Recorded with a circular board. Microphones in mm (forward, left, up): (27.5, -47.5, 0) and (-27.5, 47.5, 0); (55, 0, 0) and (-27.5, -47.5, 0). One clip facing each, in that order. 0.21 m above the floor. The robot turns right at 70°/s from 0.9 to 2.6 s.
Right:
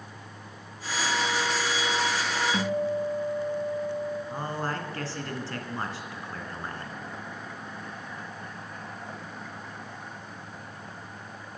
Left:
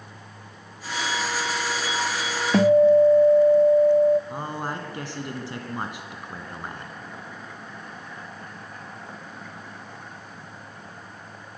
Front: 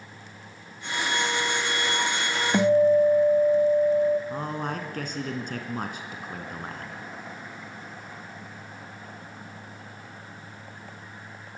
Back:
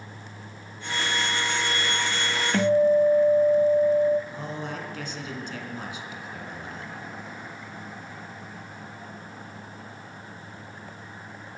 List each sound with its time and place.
2.5 s a guitar: 100° left, 1.0 m; by 4.2 s 105° left, 1.0 m
4.3 s a man speaking: 50° left, 2 m